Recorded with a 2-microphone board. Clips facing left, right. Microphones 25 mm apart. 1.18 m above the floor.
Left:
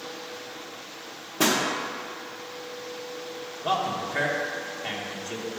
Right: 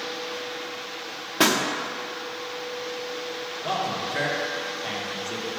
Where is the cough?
I don't hear a cough.